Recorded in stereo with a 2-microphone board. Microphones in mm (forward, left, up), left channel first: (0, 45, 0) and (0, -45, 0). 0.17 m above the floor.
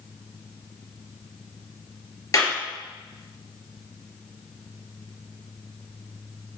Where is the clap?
40° left (ahead or behind), 3 m.